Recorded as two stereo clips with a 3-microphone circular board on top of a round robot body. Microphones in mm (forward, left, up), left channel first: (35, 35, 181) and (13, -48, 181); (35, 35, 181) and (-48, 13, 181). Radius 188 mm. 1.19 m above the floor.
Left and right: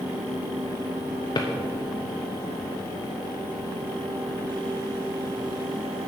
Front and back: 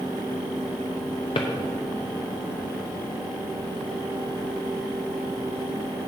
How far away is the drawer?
About 0.7 m.